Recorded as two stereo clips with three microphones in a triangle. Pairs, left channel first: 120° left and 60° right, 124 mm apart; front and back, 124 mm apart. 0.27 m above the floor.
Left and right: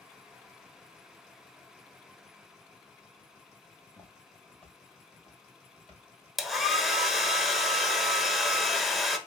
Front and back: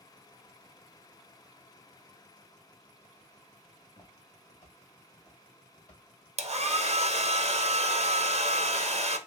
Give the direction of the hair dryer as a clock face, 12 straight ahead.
5 o'clock.